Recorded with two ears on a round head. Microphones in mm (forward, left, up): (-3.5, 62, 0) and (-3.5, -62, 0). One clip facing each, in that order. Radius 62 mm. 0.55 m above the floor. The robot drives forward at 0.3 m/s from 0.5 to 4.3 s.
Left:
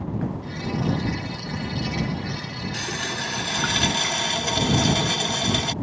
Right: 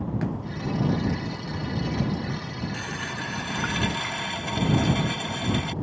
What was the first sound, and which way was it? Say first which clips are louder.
A running tap: left 3 dB; 45° left (ahead or behind).